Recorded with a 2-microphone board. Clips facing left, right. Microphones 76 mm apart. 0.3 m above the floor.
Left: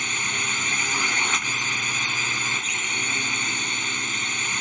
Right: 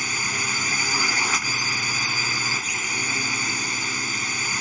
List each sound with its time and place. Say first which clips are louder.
0.0 s a drone: right 1 dB; 5° right (ahead or behind)